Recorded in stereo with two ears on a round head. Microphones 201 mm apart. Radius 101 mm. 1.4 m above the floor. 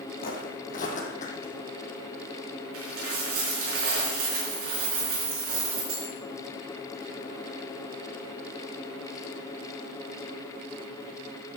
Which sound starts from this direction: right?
A dropped coin, at 2.7 s.